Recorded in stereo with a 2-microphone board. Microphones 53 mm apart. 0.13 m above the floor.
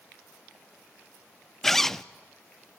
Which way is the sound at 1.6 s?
5° left (ahead or behind).